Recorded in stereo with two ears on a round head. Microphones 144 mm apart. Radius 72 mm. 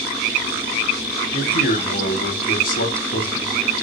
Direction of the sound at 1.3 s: 55° left (ahead or behind).